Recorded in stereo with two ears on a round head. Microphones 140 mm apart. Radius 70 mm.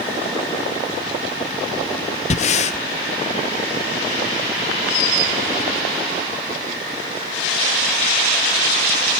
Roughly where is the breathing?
Left.